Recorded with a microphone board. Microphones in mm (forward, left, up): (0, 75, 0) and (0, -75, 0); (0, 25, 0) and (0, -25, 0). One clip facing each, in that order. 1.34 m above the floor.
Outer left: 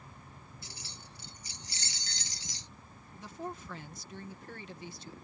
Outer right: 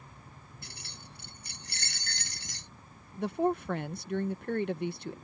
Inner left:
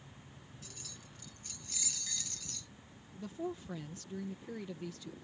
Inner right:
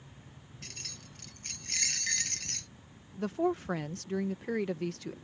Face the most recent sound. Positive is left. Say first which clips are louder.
# outer right 13 dB, inner right 10 dB
turn(degrees=-65)  # may be behind; listen again after turning